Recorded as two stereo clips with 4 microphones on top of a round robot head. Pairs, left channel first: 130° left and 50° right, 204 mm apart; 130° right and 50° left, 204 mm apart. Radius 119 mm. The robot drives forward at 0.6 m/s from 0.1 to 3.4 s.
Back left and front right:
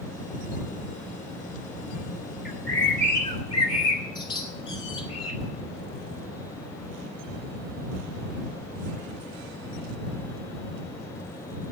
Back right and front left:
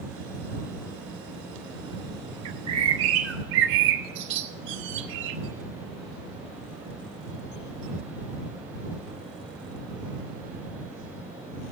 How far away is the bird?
About 1.5 m.